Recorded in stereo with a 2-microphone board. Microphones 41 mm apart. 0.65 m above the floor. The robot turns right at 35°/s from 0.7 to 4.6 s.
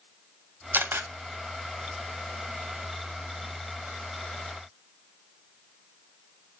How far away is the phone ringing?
No phone ringing in this recording.